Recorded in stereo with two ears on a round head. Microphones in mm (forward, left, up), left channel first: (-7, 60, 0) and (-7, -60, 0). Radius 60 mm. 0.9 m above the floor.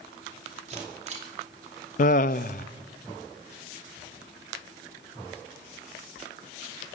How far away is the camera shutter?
About 2.5 m.